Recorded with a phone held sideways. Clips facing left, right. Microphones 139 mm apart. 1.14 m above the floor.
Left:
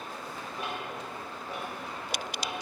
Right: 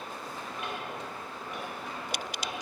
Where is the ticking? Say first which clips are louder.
Left 1 dB; 30° left (ahead or behind), 1.6 m.